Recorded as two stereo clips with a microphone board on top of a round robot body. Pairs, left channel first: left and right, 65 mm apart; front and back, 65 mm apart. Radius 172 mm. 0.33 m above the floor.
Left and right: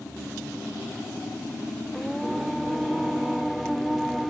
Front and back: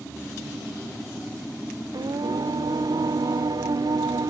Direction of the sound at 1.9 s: Straight behind.